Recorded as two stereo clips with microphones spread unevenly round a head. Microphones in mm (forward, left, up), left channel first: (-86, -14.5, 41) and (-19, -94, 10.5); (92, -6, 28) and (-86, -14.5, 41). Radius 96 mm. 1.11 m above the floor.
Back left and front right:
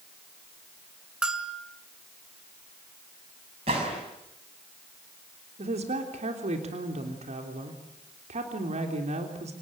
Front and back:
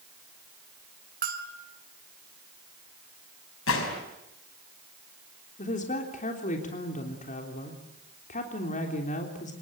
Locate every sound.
1.2 s a bell: 135° right, 2.5 m
3.7 s a gunshot: 5° left, 5 m
5.6 s a woman speaking: 45° right, 3.5 m